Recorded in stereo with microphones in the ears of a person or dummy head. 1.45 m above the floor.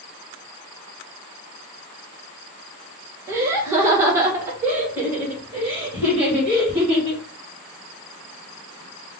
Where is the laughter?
15° right (ahead or behind), 1.4 m; by 7.2 s 10° right (ahead or behind), 3.5 m.